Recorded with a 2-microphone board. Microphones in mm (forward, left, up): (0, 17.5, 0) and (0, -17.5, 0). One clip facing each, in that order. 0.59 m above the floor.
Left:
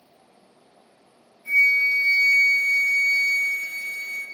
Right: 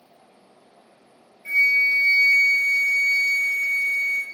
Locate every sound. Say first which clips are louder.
1.4 s a flute: even; 50° right (ahead or behind), 0.9 m